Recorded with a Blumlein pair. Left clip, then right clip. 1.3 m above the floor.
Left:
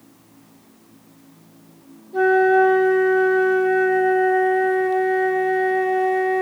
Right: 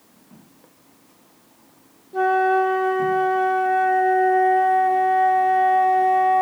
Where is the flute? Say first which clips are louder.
Left 3 dB; 5° left, 0.9 m.